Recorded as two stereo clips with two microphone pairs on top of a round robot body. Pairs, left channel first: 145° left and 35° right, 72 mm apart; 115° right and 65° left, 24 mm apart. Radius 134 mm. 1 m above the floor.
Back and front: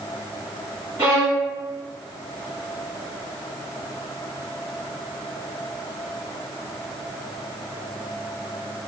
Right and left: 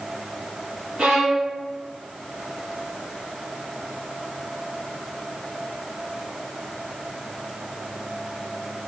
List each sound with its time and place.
1.0 s a violin: 10° left, 1.0 m